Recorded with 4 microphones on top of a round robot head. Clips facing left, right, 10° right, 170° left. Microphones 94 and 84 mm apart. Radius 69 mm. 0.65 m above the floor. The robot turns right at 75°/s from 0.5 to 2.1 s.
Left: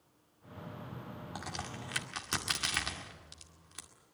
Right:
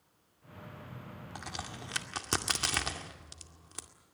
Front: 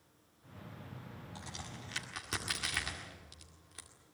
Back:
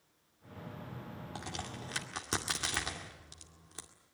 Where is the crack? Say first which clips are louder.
Even, back 6 dB; 170° left, 2 m; by 3.9 s 135° right, 2 m.